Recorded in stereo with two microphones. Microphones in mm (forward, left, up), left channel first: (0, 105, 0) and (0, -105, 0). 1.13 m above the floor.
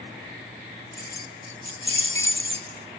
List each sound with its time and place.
0.9 s keys jangling: 50° left (ahead or behind), 1.1 m; by 3.0 s 40° left (ahead or behind), 0.8 m